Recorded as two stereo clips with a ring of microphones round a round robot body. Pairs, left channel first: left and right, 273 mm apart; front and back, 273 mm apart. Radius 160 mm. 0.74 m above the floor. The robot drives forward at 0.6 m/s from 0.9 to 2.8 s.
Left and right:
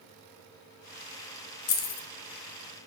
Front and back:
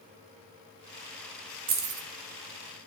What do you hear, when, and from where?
1.7 s keys jangling: 125° left, 0.6 m; by 2.1 s 140° left, 0.8 m